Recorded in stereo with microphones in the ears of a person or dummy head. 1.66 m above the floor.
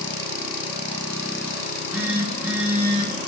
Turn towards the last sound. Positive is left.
turn(degrees=-10)  # may be behind; listen again after turning